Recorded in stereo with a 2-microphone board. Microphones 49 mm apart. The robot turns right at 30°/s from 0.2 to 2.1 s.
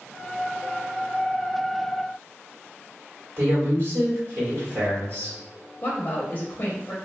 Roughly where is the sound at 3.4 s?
Right.